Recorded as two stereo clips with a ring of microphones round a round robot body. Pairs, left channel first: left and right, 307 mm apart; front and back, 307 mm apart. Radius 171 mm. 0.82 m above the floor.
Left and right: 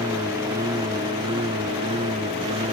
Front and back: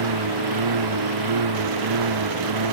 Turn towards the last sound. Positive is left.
turn(degrees=-165)